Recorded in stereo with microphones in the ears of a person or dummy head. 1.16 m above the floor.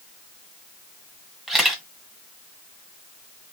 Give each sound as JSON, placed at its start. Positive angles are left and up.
{"t": 1.5, "sound": "a camera shutter", "side_deg": -5, "distance_m": 1.6}